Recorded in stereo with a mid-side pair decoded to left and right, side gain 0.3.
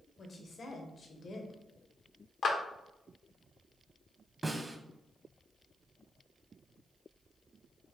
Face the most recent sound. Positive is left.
turn(degrees=-25)